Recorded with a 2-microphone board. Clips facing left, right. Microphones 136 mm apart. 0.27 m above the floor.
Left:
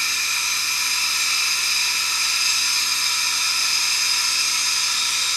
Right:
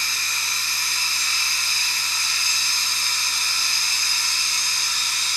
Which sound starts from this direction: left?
Running water, at 0.0 s.